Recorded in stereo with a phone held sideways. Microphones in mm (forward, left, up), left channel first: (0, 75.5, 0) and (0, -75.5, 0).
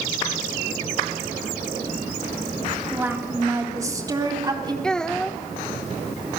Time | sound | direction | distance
2.9 | a woman speaking | 15° right (ahead or behind) | 3 m
4.8 | a child speaking | 5° left (ahead or behind) | 1.0 m